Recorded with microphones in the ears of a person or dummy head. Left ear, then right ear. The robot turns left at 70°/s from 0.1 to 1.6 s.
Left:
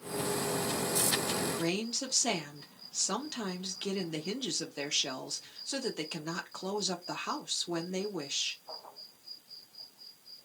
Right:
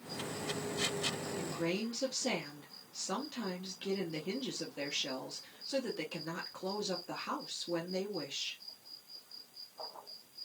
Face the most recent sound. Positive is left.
turn(degrees=25)  # may be behind; listen again after turning